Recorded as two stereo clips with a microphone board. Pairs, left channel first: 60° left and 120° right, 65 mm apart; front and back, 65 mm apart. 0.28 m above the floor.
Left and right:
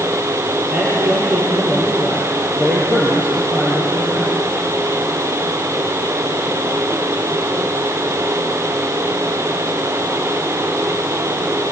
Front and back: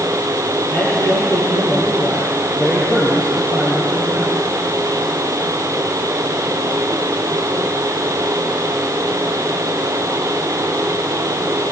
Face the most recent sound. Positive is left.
turn(degrees=-55)